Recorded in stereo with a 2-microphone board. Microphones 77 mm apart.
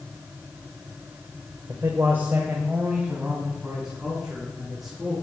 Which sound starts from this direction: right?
A man speaking, at 1.7 s.